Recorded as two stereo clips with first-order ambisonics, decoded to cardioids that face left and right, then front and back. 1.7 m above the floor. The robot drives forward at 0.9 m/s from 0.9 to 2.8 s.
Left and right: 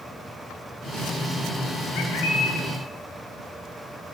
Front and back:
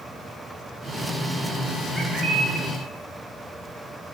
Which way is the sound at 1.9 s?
95° left.